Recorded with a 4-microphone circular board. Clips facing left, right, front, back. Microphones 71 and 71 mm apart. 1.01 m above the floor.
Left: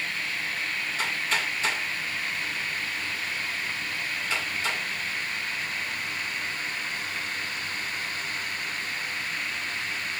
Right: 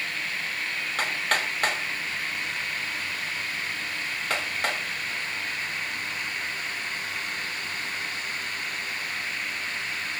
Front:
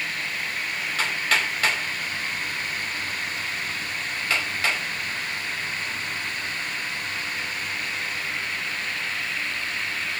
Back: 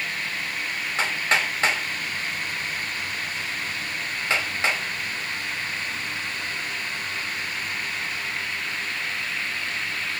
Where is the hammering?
115° right, 5.5 m.